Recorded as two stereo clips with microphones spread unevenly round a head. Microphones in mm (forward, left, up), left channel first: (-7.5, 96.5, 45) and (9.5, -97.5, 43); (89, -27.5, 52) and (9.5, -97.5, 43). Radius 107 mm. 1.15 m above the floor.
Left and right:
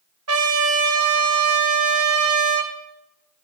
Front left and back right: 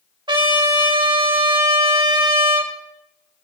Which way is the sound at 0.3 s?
95° right.